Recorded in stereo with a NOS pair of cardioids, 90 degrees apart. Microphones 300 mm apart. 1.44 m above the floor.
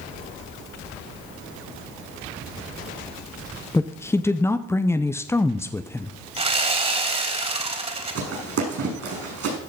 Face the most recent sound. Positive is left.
turn(degrees=-55)